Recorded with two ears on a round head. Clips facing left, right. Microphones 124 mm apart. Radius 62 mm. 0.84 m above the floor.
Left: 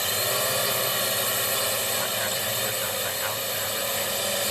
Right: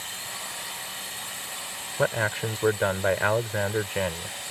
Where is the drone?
75° left (ahead or behind).